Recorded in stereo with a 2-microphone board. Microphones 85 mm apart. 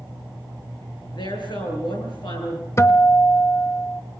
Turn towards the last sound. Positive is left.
turn(degrees=35)  # may be behind; listen again after turning